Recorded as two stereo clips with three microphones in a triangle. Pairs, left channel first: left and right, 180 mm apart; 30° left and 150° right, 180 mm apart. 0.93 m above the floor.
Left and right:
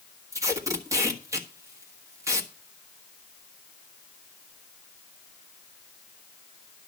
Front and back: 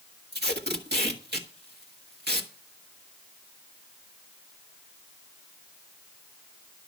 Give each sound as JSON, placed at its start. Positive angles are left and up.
{"t": 0.3, "sound": "tape being pulled", "azimuth_deg": -165, "distance_m": 1.6}